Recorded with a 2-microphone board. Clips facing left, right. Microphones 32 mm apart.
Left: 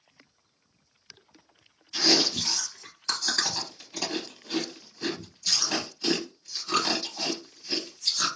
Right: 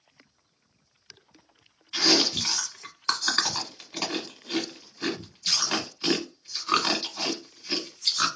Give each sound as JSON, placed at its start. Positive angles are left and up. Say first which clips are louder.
{"t": 1.9, "sound": "chewing", "louder": "right 1 dB", "side_deg": -45, "distance_m": 1.5}